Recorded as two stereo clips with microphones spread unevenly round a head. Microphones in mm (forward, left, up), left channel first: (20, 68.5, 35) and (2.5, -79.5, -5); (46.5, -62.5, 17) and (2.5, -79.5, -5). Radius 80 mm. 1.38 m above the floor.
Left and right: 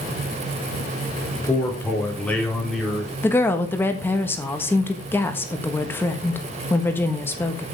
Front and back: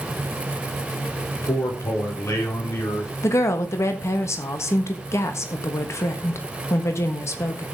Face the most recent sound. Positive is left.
turn(degrees=10)